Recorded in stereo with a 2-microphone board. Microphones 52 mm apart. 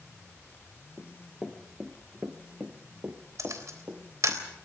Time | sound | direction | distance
1.0 | running footsteps | 10° left (ahead or behind) | 2.5 m
3.4 | a camera shutter | 70° right (ahead or behind) | 3.5 m